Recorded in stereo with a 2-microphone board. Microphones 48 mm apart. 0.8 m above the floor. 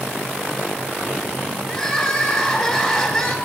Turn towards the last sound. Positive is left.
turn(degrees=10)  # may be behind; listen again after turning